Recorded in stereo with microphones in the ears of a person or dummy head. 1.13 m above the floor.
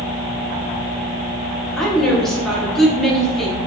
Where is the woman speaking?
Centre (ahead or behind), 1.0 m.